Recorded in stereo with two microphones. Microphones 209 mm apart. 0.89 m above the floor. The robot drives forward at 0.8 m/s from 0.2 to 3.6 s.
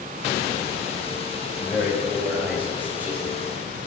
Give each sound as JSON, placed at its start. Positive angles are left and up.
{"t": 1.6, "sound": "a man speaking", "side_deg": -5, "distance_m": 4.5}